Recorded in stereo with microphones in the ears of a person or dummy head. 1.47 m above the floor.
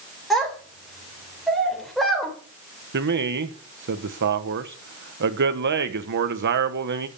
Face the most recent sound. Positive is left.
turn(degrees=-60)  # may be behind; listen again after turning